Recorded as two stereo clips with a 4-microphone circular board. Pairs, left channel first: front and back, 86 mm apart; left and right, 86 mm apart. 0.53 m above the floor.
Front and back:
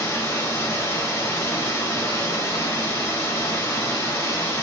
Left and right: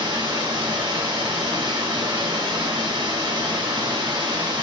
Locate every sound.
0.0 s running water: 55° right, 0.9 m